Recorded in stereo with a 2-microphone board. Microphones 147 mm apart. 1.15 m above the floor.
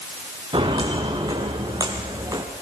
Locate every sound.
0.5 s footsteps: 35° right (ahead or behind), 5 m; by 2.5 s 25° right (ahead or behind), 4.5 m